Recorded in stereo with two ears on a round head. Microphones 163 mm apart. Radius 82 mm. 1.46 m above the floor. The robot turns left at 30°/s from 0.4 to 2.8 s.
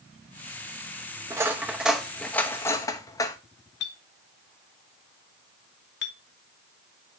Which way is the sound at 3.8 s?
65° left (ahead or behind).